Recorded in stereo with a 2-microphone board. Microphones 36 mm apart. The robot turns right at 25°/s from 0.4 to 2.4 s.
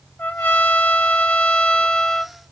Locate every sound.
0.2 s a trumpet: 120° left, 0.9 m; by 2.4 s 170° left, 0.9 m